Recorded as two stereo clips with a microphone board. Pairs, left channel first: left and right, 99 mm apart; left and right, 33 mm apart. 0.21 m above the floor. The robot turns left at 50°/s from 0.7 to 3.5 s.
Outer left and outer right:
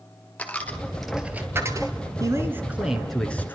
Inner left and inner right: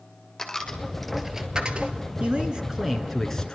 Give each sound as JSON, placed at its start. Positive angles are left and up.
{"t": 0.4, "sound": "a dropped coin", "side_deg": 15, "distance_m": 1.7}
{"t": 2.2, "sound": "a man speaking", "azimuth_deg": -135, "distance_m": 2.5}